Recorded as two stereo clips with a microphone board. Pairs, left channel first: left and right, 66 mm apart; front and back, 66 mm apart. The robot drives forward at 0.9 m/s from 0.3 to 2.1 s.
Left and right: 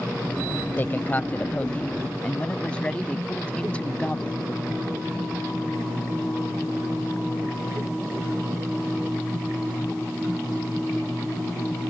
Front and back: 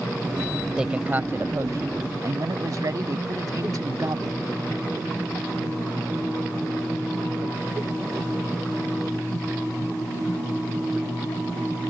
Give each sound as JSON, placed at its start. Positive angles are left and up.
{"t": 0.8, "sound": "a man speaking", "azimuth_deg": 110}